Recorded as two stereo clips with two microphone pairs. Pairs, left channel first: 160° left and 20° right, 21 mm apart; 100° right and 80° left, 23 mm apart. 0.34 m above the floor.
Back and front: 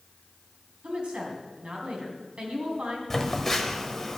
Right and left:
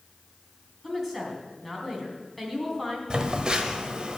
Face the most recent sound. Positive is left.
turn(degrees=90)